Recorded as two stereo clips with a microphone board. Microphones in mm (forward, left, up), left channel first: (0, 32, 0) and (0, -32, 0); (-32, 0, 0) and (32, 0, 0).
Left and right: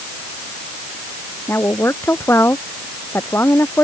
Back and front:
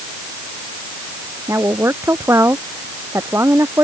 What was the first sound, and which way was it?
A woman speaking, 40° left.